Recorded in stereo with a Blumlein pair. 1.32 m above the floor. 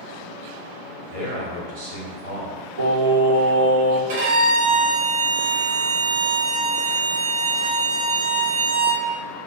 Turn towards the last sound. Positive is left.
turn(degrees=-55)